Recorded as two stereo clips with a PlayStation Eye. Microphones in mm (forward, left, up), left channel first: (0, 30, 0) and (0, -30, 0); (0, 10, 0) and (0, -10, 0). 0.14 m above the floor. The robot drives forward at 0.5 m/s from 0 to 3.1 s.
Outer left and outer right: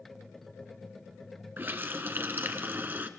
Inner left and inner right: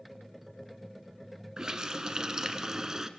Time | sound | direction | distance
1.6 | a running tap | 35° right (ahead or behind) | 1.1 m